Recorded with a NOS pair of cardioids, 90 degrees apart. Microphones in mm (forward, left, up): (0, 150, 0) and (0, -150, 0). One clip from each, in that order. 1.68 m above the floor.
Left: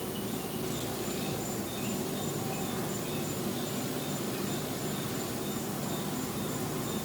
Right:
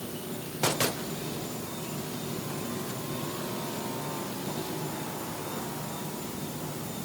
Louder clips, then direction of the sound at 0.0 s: Left 2 dB; 55° left.